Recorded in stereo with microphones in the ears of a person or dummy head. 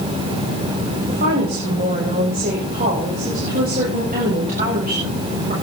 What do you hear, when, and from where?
1.1 s a woman speaking: 40° right (ahead or behind), 7 m